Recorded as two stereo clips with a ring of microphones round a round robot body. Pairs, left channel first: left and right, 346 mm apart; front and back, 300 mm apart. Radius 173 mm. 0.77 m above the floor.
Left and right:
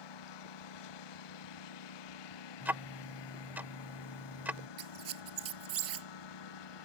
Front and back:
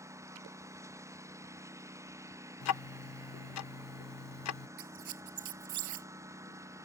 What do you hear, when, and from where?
0.0 s a lawn mower: 100° left
2.6 s ticking: 5° right
4.8 s a squeak: 140° right